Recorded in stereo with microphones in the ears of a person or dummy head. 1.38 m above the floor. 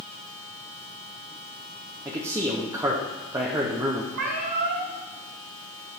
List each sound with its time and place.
2.0 s a man speaking: 15° right (ahead or behind), 0.8 m
4.1 s a cat meowing: 60° right (ahead or behind), 3.5 m